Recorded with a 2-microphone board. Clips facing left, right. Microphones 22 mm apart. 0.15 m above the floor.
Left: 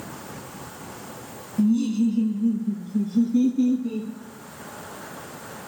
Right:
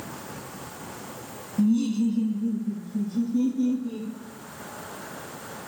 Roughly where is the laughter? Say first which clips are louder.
Left 2 dB; centre.